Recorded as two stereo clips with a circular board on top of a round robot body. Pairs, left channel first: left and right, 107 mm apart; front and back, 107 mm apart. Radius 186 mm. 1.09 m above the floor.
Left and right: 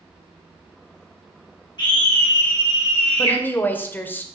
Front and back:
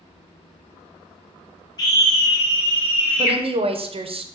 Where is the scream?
50° left, 1.0 m; by 3.4 s 75° left, 1.6 m.